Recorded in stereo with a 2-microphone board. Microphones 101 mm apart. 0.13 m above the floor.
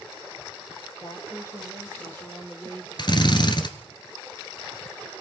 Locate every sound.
1.0 s a woman speaking: 35° left (ahead or behind), 4 m; by 3.5 s 5° left (ahead or behind), 4.5 m
3.0 s a drill: 50° left (ahead or behind), 1.8 m